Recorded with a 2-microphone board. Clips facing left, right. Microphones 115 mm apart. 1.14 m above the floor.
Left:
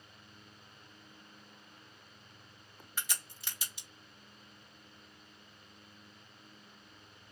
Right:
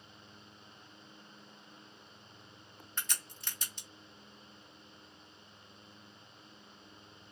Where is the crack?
10° left (ahead or behind), 1.0 m.